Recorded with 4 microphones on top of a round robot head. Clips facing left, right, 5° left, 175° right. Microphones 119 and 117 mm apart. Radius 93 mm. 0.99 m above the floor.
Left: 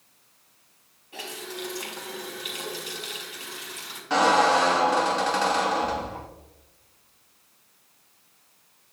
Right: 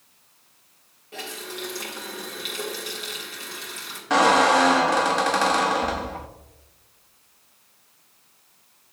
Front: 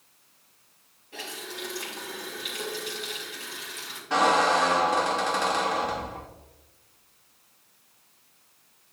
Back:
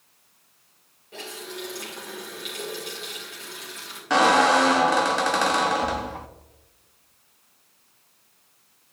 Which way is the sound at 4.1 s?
145° right.